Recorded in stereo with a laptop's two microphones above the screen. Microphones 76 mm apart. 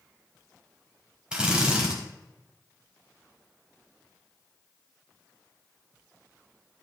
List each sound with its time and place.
1.3 s a drill: 10° right (ahead or behind), 4 m